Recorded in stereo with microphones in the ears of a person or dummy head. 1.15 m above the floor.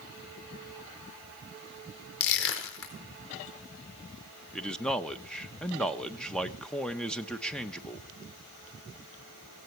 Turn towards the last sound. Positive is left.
turn(degrees=5)  # may be behind; listen again after turning